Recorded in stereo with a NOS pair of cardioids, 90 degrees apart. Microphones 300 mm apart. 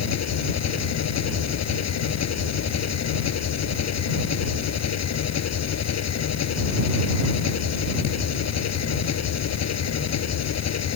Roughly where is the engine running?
Ahead left.